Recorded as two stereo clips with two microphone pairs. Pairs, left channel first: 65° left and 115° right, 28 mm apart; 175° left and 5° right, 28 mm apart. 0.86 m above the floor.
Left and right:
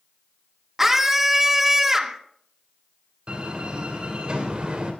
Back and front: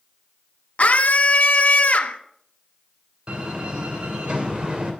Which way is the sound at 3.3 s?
55° right.